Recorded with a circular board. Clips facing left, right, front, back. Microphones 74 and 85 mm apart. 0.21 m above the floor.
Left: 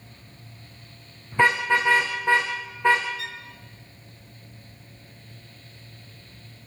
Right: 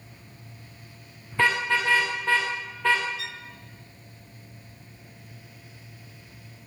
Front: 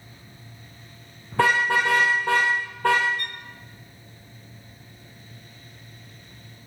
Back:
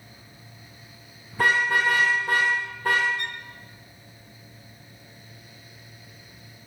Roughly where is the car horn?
Ahead.